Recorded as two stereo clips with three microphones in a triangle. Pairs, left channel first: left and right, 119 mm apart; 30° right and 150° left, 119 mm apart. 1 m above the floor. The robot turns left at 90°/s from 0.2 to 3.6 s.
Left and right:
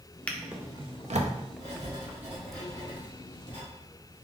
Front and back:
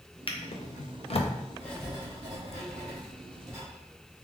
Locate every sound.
0.3 s a drawer: 10° left, 0.5 m; by 1.3 s 85° right, 0.5 m
1.6 s writing: 105° right, 1.9 m; by 3.6 s 75° left, 1.9 m